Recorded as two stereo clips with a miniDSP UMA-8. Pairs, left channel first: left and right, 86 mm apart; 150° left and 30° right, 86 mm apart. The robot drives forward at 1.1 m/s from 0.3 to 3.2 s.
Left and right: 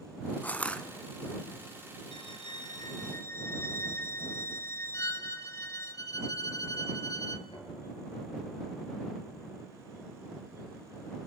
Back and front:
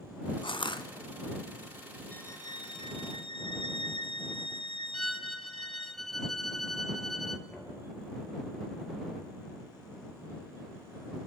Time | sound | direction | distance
0.4 | crushing | 160° left | 1.0 m
2.1 | a violin | 80° left | 0.6 m
4.9 | a violin | 65° left | 0.9 m
7.5 | knocking | 80° left | 6.5 m